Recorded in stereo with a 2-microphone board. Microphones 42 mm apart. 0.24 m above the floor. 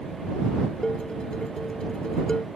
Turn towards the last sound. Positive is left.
turn(degrees=20)  # may be behind; listen again after turning